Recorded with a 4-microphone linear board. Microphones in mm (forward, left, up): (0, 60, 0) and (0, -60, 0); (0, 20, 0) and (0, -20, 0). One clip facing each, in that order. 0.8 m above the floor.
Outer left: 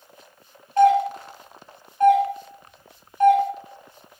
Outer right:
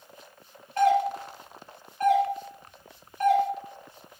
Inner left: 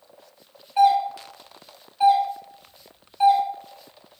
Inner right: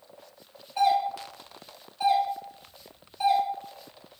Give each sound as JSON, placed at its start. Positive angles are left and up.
{"t": 0.8, "sound": "a doorbell", "side_deg": 15, "distance_m": 1.3}